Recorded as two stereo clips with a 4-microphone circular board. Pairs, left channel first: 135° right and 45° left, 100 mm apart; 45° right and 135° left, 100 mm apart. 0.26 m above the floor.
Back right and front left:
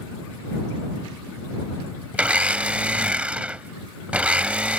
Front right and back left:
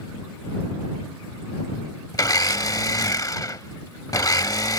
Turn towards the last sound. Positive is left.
turn(degrees=-25)